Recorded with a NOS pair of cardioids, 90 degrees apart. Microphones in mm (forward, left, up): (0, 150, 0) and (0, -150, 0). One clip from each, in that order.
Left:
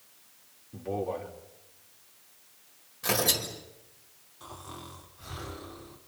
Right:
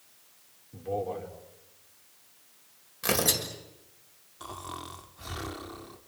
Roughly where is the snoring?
Ahead right.